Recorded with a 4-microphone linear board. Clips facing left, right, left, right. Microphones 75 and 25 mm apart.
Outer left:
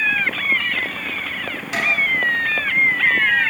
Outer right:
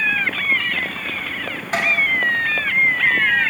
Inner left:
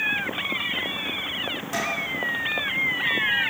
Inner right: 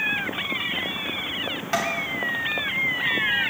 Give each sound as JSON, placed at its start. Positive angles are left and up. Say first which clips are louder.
{"t": 1.7, "sound": "tapping", "louder": "outer right 2 dB, inner right 4 dB", "side_deg": -40, "distance_m": 2.5}